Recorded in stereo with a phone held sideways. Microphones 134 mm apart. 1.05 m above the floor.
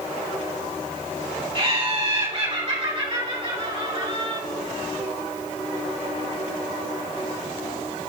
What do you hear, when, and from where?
1.6 s laughter: 40° right (ahead or behind), 3 m